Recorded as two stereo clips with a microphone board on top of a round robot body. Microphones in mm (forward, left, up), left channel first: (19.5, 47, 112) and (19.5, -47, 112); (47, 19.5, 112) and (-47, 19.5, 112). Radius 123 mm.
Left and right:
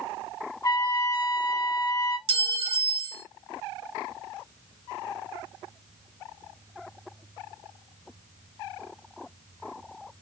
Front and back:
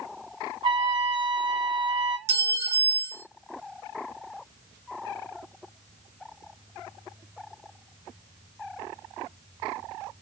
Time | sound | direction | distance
0.6 | a trumpet | 145° left | 2.5 m
2.3 | a clink | 115° right | 1.3 m